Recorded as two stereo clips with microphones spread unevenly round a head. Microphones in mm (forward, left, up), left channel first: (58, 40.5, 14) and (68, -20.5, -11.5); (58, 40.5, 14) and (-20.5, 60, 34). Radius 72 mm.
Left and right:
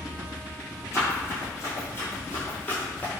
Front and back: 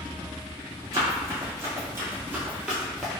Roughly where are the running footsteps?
Behind left.